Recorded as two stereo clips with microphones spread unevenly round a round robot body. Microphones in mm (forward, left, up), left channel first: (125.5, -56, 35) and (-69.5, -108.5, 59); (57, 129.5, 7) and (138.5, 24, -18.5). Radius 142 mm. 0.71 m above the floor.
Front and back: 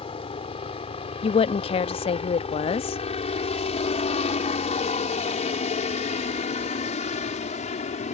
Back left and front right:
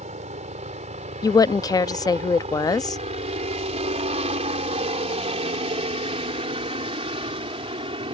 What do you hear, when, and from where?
0.0 s a helicopter: 40° right; by 8.1 s 25° right
1.2 s a woman speaking: 60° left